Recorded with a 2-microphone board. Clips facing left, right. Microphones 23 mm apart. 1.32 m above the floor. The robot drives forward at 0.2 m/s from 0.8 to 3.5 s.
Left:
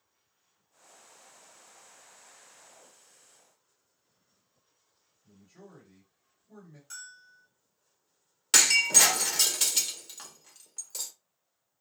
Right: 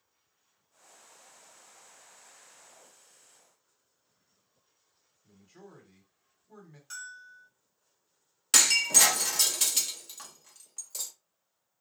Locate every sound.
5.2 s a man speaking: 35° right (ahead or behind), 1.3 m
6.9 s a bell: 15° right (ahead or behind), 1.2 m
8.5 s breaking glass: 5° left (ahead or behind), 0.6 m